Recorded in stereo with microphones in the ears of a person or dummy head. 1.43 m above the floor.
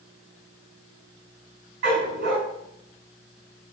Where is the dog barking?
60° right (ahead or behind), 5 m.